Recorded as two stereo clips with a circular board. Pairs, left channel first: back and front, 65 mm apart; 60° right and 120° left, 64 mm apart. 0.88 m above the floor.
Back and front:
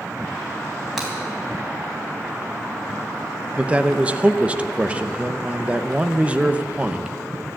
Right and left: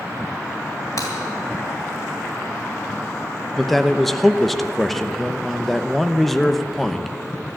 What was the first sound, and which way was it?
Breaking glass, 85° right.